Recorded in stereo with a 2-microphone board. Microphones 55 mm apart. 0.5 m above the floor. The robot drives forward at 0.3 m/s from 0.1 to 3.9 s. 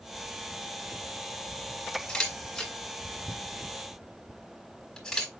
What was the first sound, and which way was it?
A camera shutter, 15° left (ahead or behind).